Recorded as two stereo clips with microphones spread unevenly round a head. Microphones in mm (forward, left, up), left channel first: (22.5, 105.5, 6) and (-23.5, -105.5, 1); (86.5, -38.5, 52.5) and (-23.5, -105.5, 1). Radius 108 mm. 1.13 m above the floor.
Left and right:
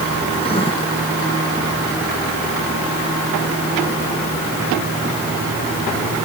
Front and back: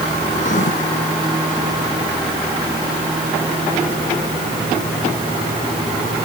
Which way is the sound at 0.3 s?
15° left.